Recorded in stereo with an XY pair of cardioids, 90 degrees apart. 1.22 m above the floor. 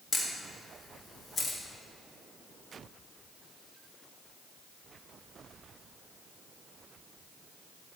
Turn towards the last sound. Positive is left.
turn(degrees=55)